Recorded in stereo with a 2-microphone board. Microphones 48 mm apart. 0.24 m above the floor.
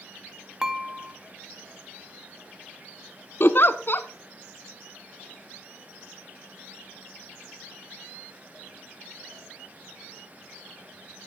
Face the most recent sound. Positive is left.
turn(degrees=50)  # may be behind; listen again after turning